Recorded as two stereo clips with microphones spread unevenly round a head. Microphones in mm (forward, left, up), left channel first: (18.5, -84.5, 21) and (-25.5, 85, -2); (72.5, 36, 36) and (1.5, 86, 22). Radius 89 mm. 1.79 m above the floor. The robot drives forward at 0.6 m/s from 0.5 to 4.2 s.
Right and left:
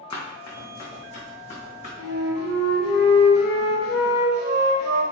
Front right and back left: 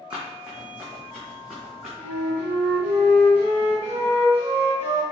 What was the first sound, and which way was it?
Running footsteps, 130° right.